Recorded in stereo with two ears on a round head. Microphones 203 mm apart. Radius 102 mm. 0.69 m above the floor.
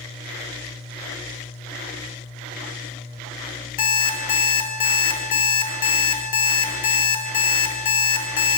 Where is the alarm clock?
40° left (ahead or behind), 1.2 m.